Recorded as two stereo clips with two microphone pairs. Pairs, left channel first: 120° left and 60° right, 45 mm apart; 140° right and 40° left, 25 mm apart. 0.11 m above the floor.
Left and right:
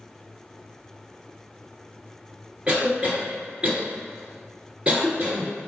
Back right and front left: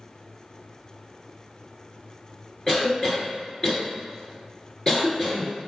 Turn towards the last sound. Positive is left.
turn(degrees=-105)